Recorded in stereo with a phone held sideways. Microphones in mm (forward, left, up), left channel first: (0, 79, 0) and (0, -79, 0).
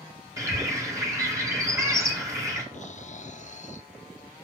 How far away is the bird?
About 2 m.